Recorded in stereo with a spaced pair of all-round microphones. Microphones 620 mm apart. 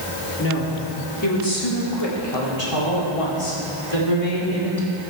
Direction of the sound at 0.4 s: 20° left (ahead or behind).